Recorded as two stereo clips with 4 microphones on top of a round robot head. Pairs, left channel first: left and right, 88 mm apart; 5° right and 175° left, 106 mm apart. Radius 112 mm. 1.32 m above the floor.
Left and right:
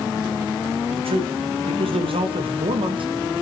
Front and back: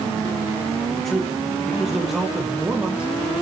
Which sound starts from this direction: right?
A man speaking, at 0.9 s.